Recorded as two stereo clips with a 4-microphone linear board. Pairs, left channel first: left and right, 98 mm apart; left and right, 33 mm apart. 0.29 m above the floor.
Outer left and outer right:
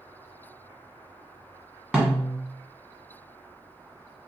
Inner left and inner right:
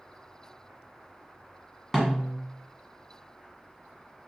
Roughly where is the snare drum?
Centre.